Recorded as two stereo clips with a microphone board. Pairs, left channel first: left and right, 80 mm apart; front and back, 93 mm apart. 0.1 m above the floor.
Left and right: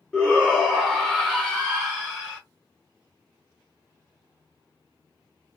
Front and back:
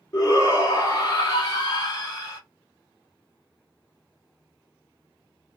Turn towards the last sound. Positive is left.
turn(degrees=20)